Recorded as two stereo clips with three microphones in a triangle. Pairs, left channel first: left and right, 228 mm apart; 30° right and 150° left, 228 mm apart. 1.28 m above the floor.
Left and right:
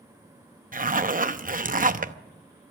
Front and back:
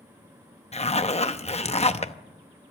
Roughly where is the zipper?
Right.